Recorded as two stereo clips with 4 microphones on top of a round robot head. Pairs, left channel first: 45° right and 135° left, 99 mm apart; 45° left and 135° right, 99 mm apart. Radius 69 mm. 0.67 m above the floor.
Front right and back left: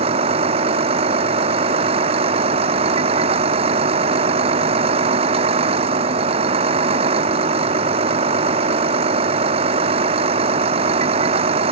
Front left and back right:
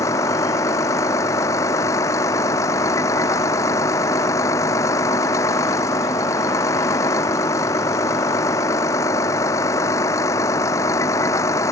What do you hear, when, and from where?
0.0 s a vehicle: 110° left